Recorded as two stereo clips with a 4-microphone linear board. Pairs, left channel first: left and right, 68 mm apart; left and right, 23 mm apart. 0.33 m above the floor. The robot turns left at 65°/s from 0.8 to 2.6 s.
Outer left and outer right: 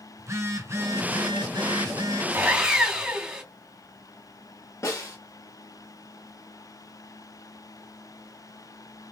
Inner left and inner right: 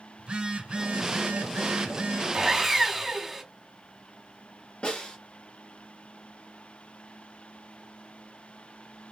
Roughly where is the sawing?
Right.